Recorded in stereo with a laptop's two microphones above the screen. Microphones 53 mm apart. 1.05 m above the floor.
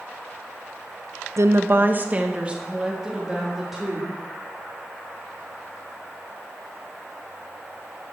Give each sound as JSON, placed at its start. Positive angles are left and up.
{"t": 1.4, "sound": "a woman speaking", "side_deg": -65, "distance_m": 0.7}